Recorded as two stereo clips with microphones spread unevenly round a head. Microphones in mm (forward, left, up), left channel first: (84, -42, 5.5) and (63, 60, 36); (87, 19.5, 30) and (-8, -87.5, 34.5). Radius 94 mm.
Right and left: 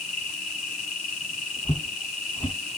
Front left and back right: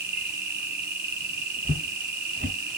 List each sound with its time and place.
0.0 s an insect: 125° right, 1.2 m
1.6 s footsteps: 150° right, 1.5 m